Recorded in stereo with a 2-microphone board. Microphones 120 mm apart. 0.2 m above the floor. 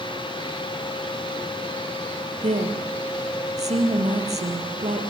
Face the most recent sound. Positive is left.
turn(degrees=-65)  # may be behind; listen again after turning